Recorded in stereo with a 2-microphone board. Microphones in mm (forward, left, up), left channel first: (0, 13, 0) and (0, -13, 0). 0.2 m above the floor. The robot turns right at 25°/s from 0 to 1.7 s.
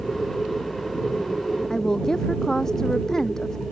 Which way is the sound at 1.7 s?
25° left (ahead or behind).